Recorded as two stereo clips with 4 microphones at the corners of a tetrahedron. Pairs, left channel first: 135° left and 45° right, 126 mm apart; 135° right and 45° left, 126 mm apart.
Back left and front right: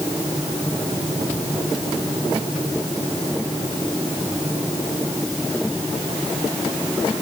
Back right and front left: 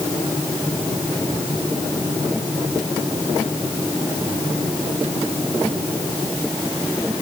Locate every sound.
Only background noise.